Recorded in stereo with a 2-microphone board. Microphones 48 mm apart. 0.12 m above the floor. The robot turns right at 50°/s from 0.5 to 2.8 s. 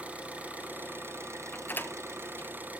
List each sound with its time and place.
0.0 s an engine running: 150° right, 2 m; by 2.8 s 35° right, 2 m
1.5 s a door slam: 35° left (ahead or behind), 1.5 m; by 2.5 s 55° left (ahead or behind), 1.5 m